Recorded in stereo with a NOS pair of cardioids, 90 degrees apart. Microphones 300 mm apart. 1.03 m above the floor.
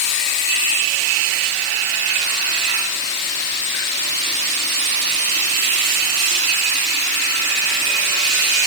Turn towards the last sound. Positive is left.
No sound to turn to.